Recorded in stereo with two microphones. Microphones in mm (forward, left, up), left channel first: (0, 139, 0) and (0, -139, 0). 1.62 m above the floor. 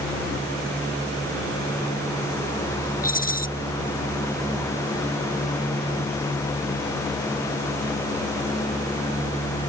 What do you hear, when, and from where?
3.0 s a rattle: 30° left (ahead or behind)